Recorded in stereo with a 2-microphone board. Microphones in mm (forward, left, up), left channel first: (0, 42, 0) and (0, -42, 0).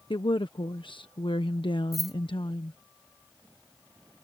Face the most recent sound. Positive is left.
turn(degrees=0)  # may be behind; listen again after turning